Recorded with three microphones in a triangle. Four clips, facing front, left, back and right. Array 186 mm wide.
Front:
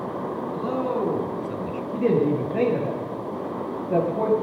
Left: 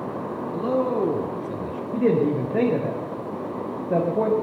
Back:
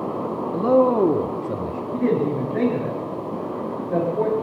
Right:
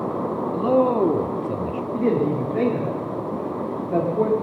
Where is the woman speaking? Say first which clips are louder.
Left 1 dB, even; 80° left, 8 m.